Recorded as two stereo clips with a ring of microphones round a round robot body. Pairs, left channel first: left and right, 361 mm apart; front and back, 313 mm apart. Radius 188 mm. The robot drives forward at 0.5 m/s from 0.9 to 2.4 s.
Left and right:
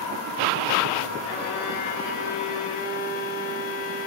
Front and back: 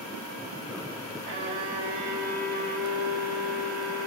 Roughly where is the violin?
Behind left.